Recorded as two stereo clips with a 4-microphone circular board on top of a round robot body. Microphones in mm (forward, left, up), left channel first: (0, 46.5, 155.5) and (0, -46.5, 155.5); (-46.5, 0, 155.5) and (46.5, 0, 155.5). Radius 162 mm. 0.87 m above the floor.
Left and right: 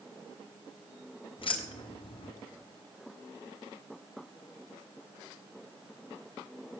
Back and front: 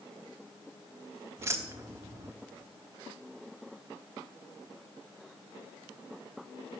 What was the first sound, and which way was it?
Keys jangling, 60° left.